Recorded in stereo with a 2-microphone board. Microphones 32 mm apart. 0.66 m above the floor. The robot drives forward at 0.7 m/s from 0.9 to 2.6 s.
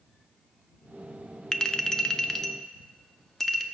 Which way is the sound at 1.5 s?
15° left (ahead or behind).